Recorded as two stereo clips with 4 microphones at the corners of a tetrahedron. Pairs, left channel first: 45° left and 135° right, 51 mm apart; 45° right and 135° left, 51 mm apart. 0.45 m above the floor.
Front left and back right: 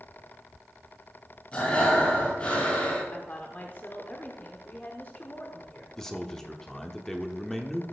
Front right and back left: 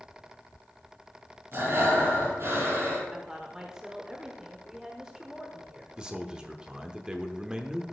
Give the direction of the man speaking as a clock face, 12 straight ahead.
8 o'clock.